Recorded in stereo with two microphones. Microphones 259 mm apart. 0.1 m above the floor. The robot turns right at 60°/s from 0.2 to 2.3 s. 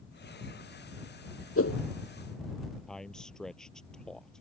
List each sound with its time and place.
1.6 s a whoosh: 60° left (ahead or behind); by 1.8 s 70° left (ahead or behind)
2.9 s a man speaking: centre (ahead or behind)